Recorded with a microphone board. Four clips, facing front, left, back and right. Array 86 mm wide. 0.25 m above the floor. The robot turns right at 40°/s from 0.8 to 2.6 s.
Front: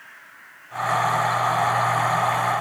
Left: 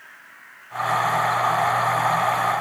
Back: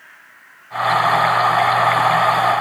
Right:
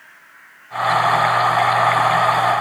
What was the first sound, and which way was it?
Only background noise.